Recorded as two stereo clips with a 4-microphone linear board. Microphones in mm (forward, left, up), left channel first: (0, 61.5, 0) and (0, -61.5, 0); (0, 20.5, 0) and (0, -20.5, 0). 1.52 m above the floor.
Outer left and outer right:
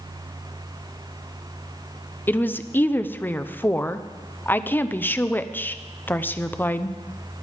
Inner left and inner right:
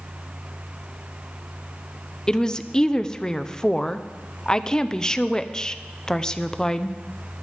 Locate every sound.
2.3 s a woman speaking: 15° left (ahead or behind), 0.6 m